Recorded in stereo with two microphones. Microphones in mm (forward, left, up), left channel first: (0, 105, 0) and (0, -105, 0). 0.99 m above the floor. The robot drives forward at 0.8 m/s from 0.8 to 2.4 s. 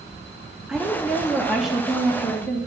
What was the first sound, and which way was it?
A woman speaking, 5° right (ahead or behind).